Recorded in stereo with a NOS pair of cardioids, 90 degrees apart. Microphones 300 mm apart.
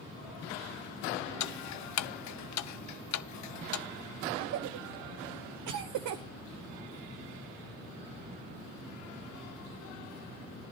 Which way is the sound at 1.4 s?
60° left.